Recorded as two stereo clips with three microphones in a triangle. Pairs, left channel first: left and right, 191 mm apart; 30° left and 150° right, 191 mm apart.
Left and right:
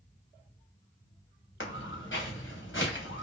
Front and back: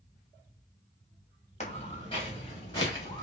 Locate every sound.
1.6 s footsteps: 85° left, 1.7 m; by 3.2 s 105° left, 2.5 m